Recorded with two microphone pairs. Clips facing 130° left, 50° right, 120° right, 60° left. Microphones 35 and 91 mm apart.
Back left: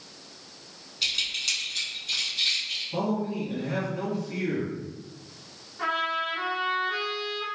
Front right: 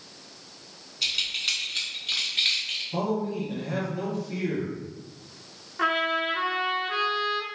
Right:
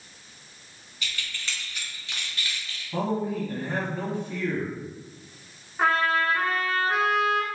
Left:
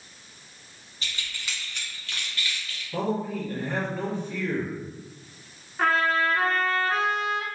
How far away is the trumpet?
About 0.6 m.